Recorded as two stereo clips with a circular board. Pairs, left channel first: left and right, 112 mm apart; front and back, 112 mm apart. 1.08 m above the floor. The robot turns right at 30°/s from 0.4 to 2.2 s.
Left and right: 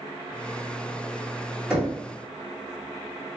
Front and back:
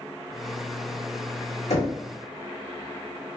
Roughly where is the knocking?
Ahead.